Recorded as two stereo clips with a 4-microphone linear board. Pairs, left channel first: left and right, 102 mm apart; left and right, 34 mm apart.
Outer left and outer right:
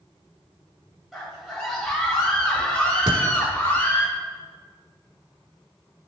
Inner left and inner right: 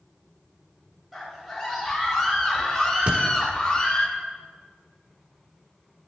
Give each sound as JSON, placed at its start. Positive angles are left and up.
{"t": 1.1, "sound": "a scream", "side_deg": 0, "distance_m": 4.0}
{"t": 3.1, "sound": "a thud", "side_deg": -55, "distance_m": 1.2}